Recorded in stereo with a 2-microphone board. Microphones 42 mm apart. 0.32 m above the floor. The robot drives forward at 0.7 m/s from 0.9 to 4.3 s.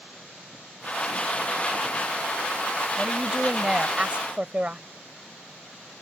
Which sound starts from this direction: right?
A woman speaking, at 3.0 s.